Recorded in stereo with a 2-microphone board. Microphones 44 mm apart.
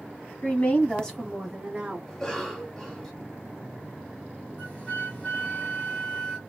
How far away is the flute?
About 1.6 m.